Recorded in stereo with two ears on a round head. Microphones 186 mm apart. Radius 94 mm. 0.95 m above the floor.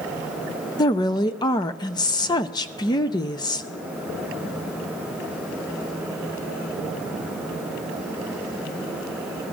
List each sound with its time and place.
0.8 s a woman speaking: 20° left (ahead or behind), 0.7 m